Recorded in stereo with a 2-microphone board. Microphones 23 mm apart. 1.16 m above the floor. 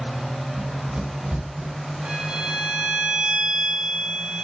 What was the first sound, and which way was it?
Running footsteps, 65° right (ahead or behind).